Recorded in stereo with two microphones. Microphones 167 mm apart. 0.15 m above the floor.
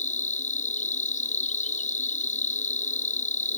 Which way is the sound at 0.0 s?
45° left (ahead or behind).